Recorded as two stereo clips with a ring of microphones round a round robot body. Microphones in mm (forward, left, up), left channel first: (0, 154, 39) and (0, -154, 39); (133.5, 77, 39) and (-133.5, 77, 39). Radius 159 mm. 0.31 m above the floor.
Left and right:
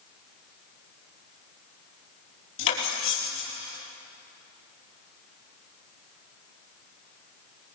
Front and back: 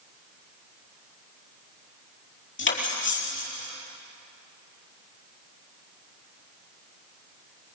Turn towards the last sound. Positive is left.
turn(degrees=40)